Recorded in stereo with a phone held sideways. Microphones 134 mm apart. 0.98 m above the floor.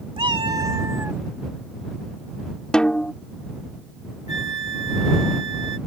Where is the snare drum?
5° left (ahead or behind).